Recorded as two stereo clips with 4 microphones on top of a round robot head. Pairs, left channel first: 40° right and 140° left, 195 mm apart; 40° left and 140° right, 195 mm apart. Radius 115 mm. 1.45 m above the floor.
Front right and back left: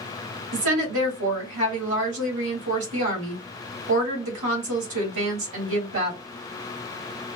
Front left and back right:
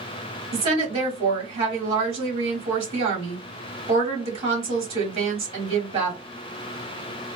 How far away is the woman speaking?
About 1.9 m.